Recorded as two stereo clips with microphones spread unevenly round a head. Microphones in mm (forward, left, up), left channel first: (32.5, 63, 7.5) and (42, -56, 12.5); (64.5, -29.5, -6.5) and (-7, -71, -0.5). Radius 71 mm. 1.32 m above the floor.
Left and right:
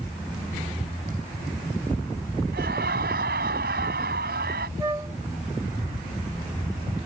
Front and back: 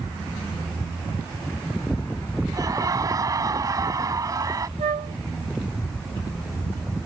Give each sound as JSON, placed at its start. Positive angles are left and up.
{"t": 2.5, "sound": "laughter", "azimuth_deg": -105}
{"t": 4.8, "sound": "a flute", "azimuth_deg": -160}